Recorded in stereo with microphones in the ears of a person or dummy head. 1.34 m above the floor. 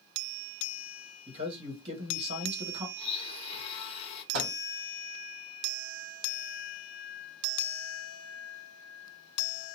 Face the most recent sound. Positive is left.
turn(degrees=-70)  # may be behind; listen again after turning